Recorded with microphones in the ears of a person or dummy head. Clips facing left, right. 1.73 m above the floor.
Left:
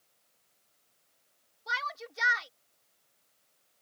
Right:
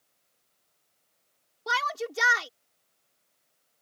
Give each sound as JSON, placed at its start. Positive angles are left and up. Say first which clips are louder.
{"t": 1.7, "sound": "a shout", "louder": "right 9 dB", "side_deg": -60}